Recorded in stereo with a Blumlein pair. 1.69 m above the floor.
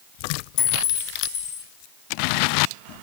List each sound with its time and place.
0.6 s a clink: 45° left, 2.5 m